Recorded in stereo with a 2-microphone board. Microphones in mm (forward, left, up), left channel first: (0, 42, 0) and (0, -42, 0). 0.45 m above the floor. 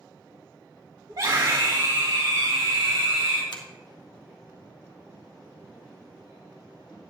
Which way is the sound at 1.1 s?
60° right (ahead or behind).